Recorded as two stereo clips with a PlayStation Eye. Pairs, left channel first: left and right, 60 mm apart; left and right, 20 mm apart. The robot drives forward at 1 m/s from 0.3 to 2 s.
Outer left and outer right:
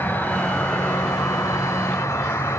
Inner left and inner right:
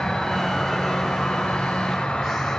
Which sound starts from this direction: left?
An insect, at 0.0 s.